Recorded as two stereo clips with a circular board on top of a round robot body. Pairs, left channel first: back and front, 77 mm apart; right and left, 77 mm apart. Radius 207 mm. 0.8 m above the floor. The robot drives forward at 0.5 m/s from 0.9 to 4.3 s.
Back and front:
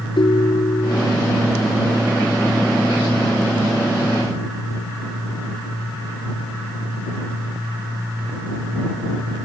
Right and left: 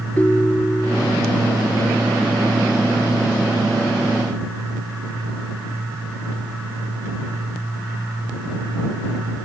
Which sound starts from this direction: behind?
A ringtone, at 0.2 s.